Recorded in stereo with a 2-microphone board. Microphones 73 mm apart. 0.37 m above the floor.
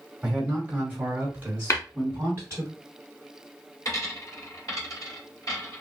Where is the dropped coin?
50° left (ahead or behind), 2 m.